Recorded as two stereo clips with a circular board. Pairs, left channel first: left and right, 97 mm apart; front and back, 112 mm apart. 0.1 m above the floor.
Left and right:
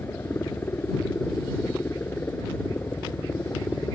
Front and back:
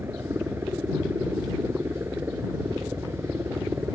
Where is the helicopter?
135° left.